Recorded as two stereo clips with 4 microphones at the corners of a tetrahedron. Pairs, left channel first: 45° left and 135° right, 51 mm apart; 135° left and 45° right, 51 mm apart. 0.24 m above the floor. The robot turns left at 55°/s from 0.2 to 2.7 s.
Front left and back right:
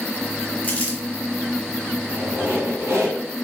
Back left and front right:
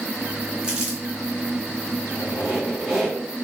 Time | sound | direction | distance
0.6 | crumpling | 20° left | 1.1 m
2.0 | a squeak | 80° right | 1.7 m